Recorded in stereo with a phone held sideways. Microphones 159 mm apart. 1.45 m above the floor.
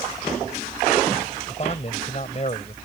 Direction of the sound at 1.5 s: 45° left (ahead or behind).